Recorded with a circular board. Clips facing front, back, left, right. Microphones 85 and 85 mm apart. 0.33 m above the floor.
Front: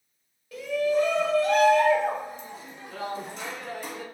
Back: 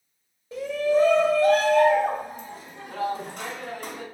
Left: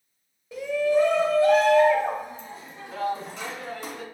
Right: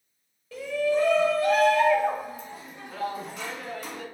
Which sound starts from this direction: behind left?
A shout, at 0.5 s.